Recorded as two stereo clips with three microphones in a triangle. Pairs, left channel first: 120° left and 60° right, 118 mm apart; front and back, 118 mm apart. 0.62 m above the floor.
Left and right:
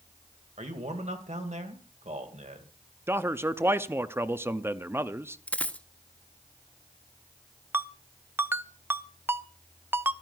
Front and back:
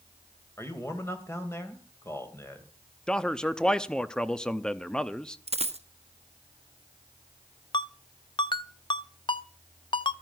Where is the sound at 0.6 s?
70° right, 2.5 m.